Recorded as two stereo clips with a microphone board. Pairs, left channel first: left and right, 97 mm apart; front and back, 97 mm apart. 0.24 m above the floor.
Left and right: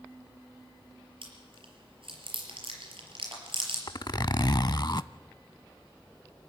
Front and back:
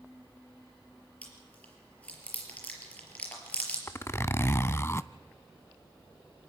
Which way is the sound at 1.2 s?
75° right.